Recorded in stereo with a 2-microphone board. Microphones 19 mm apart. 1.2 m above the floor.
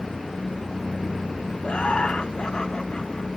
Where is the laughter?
60° left (ahead or behind), 1.2 m; by 3.3 s 40° left (ahead or behind), 2 m.